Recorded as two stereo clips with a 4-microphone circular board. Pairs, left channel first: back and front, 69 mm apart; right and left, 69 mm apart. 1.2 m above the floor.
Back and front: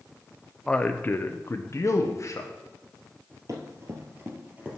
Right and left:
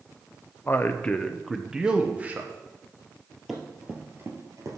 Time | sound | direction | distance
0.7 | a man speaking | 110° right | 0.6 m
3.5 | running footsteps | 5° left | 1.8 m